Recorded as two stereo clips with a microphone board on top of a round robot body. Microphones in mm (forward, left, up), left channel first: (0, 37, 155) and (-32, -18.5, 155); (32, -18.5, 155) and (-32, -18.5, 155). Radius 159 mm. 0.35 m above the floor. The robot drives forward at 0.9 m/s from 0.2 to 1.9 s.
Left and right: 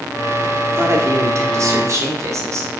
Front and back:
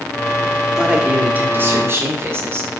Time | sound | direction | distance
0.8 | a man speaking | 100° right | 1.8 m